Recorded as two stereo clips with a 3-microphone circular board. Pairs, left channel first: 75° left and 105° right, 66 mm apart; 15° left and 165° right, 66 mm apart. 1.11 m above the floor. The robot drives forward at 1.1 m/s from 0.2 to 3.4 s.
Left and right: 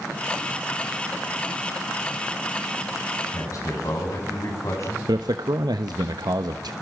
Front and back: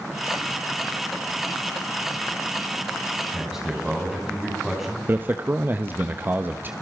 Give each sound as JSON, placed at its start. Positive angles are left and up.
{"t": 3.3, "sound": "a man speaking", "azimuth_deg": 110, "distance_m": 9.0}
{"t": 5.1, "sound": "a man speaking", "azimuth_deg": -105, "distance_m": 1.2}